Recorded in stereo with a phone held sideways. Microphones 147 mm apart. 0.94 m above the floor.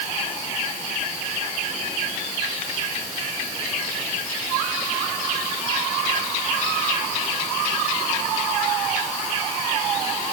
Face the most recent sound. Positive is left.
No sound to turn to.